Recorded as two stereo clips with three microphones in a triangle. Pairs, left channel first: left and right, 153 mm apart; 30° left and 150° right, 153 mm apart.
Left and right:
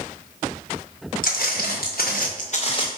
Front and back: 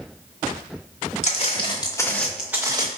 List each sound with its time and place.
1.2 s footsteps: 75° left, 1.5 m; by 2.9 s 150° left, 1.0 m